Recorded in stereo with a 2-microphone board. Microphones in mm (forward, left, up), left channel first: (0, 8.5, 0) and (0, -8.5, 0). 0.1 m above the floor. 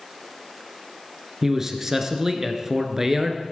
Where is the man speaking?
20° right (ahead or behind), 1.5 m.